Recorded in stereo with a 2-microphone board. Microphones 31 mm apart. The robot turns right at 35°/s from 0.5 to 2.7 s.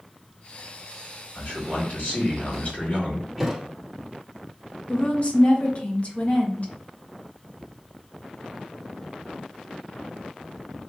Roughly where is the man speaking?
Left.